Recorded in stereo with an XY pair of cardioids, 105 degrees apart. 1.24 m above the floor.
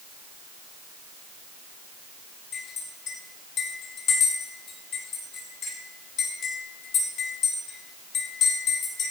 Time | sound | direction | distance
2.5 | a clink | 70° left | 6.5 m